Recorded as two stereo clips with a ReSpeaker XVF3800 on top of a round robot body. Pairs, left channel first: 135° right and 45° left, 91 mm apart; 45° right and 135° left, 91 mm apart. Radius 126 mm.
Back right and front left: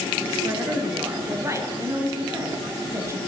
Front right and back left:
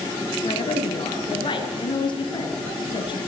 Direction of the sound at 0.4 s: 15° right.